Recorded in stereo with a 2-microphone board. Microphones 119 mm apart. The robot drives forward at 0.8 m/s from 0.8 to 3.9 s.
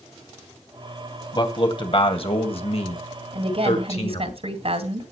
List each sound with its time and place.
1.3 s a man speaking: 40° left (ahead or behind), 2.5 m; by 4.3 s 55° left (ahead or behind), 2 m
3.3 s a woman speaking: 55° right (ahead or behind), 2.5 m